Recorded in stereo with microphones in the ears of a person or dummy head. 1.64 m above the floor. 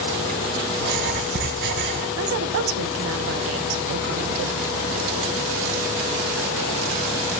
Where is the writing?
60° right (ahead or behind), 3.5 m.